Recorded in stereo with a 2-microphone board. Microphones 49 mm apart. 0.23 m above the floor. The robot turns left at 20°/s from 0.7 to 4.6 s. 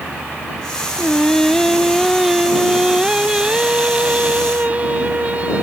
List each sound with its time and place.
1.0 s singing: 20° left; by 5.6 s 55° right